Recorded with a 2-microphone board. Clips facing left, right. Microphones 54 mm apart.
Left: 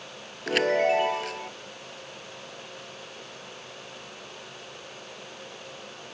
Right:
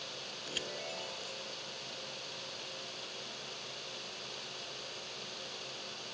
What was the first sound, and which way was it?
A chime, 65° left (ahead or behind).